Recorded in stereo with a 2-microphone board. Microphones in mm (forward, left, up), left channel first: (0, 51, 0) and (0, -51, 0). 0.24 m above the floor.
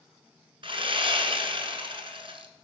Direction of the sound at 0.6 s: 60° right (ahead or behind).